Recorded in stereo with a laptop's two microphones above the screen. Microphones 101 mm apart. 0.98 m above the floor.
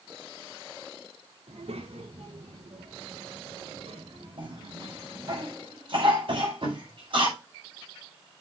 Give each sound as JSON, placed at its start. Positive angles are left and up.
{"t": 1.5, "sound": "a child speaking", "side_deg": -80, "distance_m": 2.0}
{"t": 4.4, "sound": "a cough", "side_deg": -60, "distance_m": 7.0}
{"t": 6.3, "sound": "tapping", "side_deg": -60, "distance_m": 4.5}